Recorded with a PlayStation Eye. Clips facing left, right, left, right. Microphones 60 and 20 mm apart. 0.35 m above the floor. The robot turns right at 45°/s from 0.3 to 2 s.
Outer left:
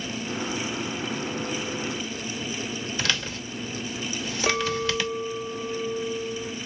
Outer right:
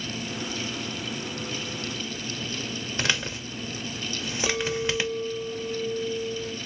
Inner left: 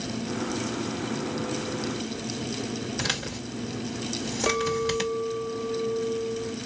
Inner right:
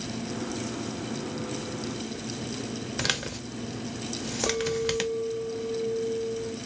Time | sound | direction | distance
3.0 | a man speaking | 20° right (ahead or behind) | 0.8 m
4.5 | a clink | 35° left (ahead or behind) | 0.6 m